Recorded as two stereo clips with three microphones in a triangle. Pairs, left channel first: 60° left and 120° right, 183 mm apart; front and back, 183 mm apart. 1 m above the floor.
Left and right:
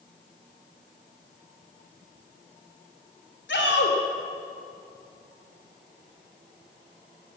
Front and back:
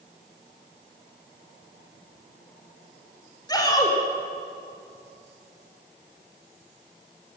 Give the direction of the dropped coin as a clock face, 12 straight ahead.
I don't hear a dropped coin.